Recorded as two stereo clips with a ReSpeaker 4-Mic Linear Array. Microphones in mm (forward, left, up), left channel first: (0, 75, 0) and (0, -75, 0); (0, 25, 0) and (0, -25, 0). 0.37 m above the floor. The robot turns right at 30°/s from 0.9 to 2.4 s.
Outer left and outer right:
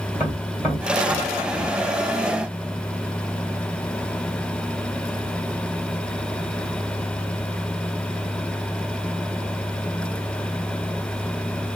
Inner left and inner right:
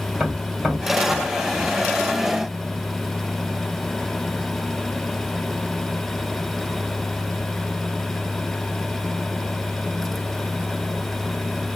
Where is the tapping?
15° right (ahead or behind), 2.5 m; by 1.7 s 35° right (ahead or behind), 2.5 m.